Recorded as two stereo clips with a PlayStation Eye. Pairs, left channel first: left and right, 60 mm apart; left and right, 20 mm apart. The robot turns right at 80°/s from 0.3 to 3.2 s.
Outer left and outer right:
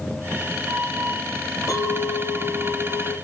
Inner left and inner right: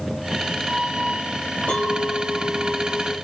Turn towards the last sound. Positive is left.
turn(degrees=-140)